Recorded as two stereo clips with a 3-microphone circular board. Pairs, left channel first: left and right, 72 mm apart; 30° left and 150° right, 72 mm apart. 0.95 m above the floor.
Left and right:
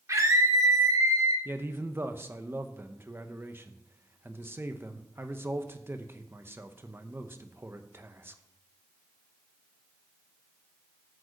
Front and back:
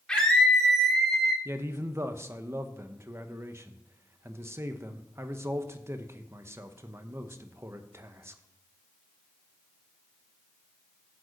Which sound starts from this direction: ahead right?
A scream, at 0.1 s.